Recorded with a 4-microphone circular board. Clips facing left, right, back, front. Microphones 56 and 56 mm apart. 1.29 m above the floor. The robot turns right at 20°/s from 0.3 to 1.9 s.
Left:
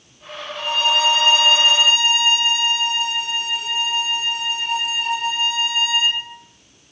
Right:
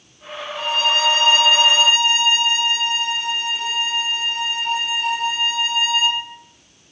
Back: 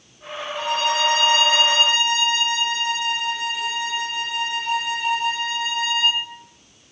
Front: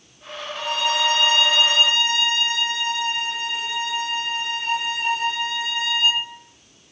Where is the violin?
65° right, 0.7 m; by 6.2 s 40° right, 0.7 m.